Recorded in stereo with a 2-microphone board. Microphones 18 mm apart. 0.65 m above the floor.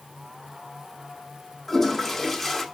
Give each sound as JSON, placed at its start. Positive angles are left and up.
{"t": 1.7, "sound": "a toilet flushing", "side_deg": 5, "distance_m": 1.2}